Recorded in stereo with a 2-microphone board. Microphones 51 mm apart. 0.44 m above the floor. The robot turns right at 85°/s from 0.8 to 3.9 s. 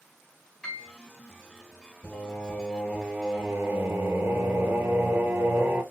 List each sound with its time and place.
0.6 s a piano: 5° left (ahead or behind), 2 m; by 0.9 s centre (ahead or behind), 2 m
2.0 s singing: 120° left, 2 m; by 5.8 s 80° right, 2 m